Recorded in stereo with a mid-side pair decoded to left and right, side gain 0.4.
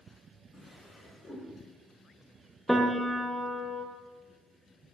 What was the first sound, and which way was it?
A drawer, 35° left.